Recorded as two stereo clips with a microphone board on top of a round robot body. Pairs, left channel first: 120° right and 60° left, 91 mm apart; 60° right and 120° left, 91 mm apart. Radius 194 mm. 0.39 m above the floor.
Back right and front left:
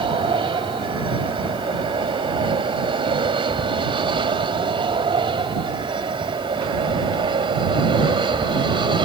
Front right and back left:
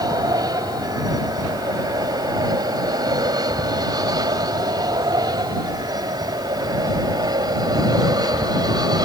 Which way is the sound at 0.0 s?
75° left.